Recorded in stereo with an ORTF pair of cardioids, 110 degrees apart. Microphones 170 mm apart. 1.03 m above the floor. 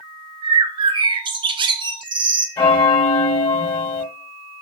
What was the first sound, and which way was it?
A bird, 30° right.